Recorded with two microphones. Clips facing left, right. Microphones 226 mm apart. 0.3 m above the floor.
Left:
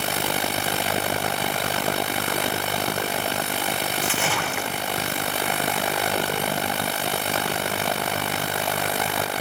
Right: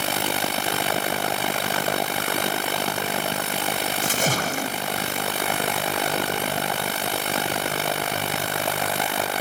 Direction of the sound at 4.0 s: 40° right (ahead or behind).